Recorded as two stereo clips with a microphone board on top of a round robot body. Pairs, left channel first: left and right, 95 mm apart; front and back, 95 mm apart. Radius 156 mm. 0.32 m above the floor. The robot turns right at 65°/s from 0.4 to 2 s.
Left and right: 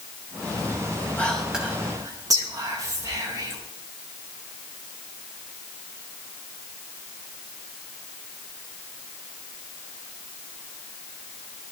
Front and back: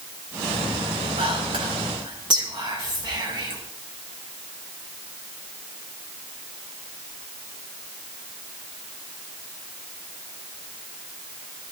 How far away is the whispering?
About 6 m.